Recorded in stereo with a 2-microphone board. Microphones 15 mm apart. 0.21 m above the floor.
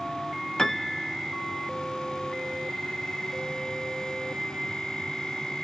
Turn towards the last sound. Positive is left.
turn(degrees=50)  # may be behind; listen again after turning